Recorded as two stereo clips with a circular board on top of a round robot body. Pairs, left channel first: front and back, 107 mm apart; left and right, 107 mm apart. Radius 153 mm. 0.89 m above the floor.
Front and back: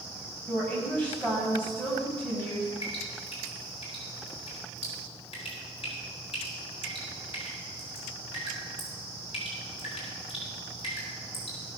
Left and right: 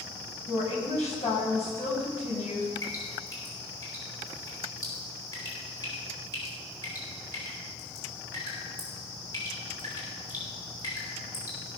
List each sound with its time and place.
0.5 s a woman speaking: 80° left, 6 m
2.8 s dripping: 35° left, 6 m